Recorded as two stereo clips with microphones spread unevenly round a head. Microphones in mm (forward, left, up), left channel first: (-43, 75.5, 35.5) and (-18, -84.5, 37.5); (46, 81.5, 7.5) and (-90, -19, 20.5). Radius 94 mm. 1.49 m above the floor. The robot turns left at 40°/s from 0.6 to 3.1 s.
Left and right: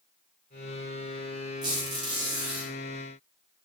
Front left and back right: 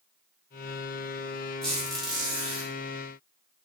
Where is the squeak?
50° right, 0.9 m; by 2.7 s 95° right, 0.9 m.